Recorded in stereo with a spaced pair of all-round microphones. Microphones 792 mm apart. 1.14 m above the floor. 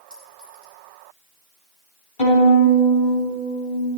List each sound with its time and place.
0.1 s a clink: centre (ahead or behind), 4.5 m
2.2 s a violin: 85° left, 4.5 m